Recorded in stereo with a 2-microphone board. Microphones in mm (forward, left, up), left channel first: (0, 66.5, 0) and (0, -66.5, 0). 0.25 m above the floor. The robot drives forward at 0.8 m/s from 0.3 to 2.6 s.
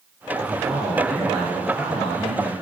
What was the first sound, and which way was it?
A man speaking, 5° right (ahead or behind).